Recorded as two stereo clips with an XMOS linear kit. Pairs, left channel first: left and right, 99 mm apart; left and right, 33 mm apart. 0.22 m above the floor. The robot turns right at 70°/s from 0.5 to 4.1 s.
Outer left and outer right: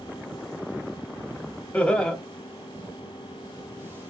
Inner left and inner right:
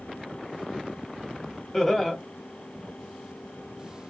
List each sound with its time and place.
1.7 s laughter: 15° left (ahead or behind), 1.0 m; by 2.2 s 5° left (ahead or behind), 1.0 m